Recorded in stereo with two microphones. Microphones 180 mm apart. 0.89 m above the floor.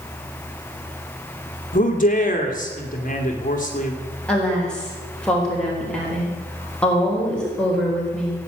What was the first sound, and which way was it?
A man speaking, 45° left (ahead or behind).